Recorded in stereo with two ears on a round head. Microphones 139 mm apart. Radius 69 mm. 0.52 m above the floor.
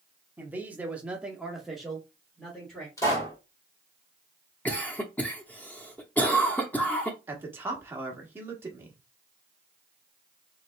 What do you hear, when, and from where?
0.4 s a man speaking: 10° right (ahead or behind), 1.1 m; by 2.9 s 5° left (ahead or behind), 1.6 m
3.0 s a pop: 20° left (ahead or behind), 2.5 m
4.7 s a cough: 10° left (ahead or behind), 0.7 m
7.3 s a man speaking: 15° right (ahead or behind), 1.2 m